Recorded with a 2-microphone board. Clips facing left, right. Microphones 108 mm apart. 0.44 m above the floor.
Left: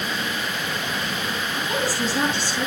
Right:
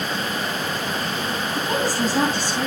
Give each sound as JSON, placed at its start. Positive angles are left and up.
{"t": 1.5, "sound": "a woman speaking", "side_deg": -50, "distance_m": 3.5}